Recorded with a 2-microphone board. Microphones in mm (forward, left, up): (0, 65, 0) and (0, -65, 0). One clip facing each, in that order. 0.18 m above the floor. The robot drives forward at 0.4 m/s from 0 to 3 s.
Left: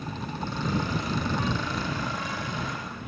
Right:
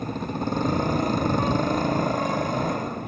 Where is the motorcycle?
45° right (ahead or behind).